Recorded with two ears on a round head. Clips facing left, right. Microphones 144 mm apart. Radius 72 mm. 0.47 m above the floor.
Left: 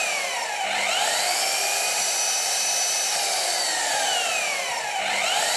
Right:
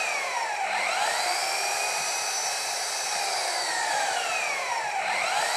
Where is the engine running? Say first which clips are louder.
Left 1 dB; 35° left (ahead or behind), 1.7 m.